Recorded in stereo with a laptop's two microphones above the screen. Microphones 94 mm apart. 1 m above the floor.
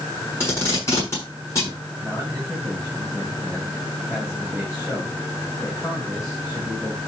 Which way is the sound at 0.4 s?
30° left (ahead or behind).